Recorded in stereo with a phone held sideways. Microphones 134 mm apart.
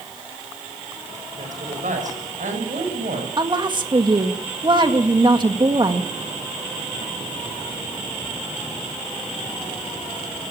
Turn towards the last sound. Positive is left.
turn(degrees=-35)  # may be behind; listen again after turning